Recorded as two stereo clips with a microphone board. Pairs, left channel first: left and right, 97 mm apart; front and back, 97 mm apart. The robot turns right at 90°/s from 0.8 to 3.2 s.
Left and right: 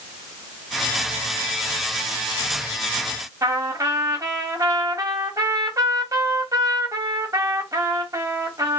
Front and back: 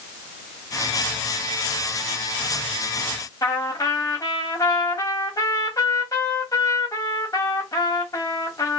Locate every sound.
3.4 s a trumpet: 45° right, 1.5 m